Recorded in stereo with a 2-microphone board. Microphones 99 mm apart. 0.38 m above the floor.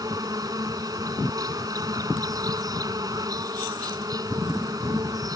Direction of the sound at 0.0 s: 40° right (ahead or behind).